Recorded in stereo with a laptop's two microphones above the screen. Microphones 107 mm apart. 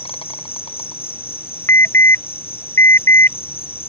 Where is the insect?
65° left (ahead or behind).